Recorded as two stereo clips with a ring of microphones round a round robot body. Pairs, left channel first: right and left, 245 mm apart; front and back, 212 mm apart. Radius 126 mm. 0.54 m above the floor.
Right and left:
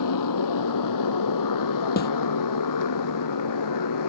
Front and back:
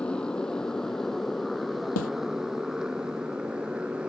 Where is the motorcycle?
85° right; by 4.1 s 95° right.